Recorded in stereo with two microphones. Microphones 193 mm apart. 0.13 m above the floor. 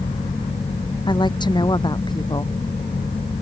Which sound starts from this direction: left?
A woman speaking, at 1.1 s.